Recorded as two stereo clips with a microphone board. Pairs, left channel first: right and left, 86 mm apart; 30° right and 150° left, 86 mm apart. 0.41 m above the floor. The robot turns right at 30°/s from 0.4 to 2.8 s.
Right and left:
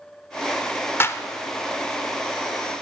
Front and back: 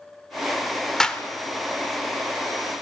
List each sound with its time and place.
1.0 s a clap: 105° right, 0.7 m; by 1.2 s 100° right, 0.7 m